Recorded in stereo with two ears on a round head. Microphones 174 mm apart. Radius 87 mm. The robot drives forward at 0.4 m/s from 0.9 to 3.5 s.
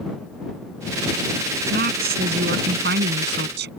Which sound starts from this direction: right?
A woman speaking, at 1.7 s.